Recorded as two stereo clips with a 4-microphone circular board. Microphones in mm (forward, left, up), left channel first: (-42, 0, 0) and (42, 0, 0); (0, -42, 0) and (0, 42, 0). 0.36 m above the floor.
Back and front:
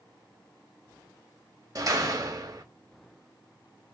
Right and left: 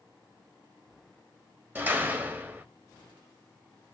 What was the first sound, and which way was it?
A door slam, 30° left.